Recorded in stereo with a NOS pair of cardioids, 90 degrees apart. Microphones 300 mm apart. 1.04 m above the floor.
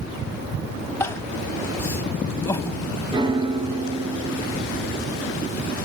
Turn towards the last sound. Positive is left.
turn(degrees=-15)